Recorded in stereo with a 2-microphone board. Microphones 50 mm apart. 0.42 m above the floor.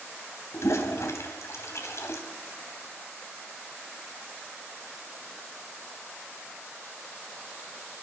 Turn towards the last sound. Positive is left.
turn(degrees=65)  # may be behind; listen again after turning